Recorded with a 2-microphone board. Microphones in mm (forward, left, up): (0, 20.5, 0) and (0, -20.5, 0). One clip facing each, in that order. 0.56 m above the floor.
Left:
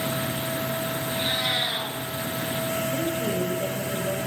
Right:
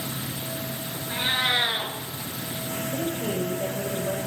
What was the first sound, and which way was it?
A cat meowing, 35° right (ahead or behind).